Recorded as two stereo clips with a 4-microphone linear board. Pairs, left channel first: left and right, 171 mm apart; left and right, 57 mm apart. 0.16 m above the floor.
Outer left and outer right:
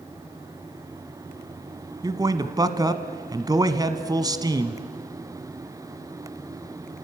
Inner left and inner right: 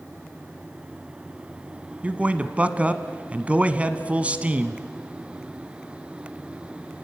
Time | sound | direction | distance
2.0 | a man speaking | 25° right (ahead or behind) | 1.1 m